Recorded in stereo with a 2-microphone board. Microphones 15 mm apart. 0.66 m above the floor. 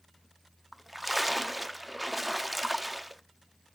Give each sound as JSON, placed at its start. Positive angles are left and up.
{"t": 0.7, "sound": "a splash", "side_deg": -5, "distance_m": 0.6}